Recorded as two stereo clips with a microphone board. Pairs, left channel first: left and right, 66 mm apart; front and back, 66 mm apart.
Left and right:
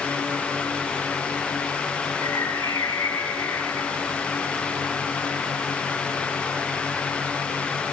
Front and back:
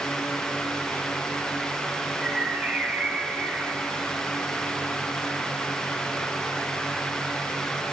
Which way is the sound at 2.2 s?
115° left.